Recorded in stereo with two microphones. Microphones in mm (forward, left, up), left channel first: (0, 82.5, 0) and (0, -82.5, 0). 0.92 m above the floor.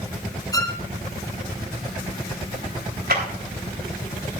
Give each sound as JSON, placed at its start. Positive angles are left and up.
{"t": 0.5, "sound": "a violin", "side_deg": 20, "distance_m": 0.9}
{"t": 3.1, "sound": "a clap", "side_deg": -75, "distance_m": 3.5}